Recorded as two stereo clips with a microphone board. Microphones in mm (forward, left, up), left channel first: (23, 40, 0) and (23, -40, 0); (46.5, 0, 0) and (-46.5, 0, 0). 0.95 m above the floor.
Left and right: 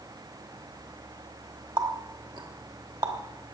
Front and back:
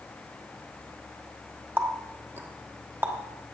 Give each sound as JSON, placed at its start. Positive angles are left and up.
{"t": 1.8, "sound": "a running tap", "azimuth_deg": -115, "distance_m": 1.3}